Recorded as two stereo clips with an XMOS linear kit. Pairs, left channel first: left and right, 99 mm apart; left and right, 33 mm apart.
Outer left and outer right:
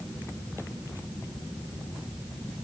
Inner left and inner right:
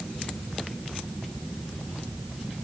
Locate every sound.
Only background noise.